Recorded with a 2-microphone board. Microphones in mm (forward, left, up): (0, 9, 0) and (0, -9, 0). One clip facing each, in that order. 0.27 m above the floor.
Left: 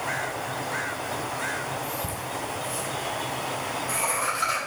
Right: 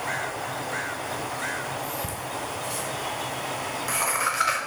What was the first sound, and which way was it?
Laughter, 45° right (ahead or behind).